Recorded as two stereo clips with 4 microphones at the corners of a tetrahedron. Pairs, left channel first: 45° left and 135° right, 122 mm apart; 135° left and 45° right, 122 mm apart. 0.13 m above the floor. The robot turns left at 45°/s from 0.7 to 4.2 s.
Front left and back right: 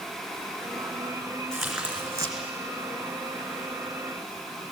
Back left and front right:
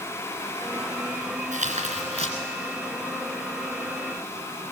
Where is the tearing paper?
40° right, 2.5 m; by 2.3 s 80° right, 2.5 m.